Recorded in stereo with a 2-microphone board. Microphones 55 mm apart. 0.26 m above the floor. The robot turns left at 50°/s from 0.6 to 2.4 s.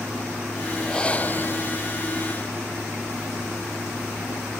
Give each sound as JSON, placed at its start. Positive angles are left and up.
{"t": 0.8, "sound": "breathing", "azimuth_deg": 170}